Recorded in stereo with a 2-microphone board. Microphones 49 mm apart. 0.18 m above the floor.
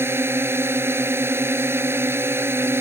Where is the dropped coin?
I don't hear a dropped coin.